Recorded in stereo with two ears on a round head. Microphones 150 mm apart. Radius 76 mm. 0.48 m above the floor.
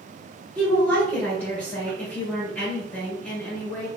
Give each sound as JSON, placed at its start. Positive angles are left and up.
{"t": 0.6, "sound": "a woman speaking", "side_deg": 10, "distance_m": 1.4}